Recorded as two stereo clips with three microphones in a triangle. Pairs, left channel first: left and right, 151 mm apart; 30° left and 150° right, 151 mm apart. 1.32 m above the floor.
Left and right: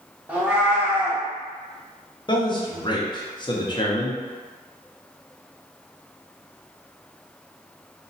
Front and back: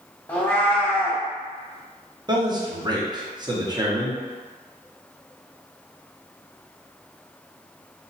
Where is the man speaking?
150° left, 0.7 m.